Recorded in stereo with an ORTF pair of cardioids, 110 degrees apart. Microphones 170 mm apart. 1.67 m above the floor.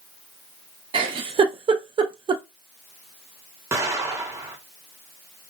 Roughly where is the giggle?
Ahead right.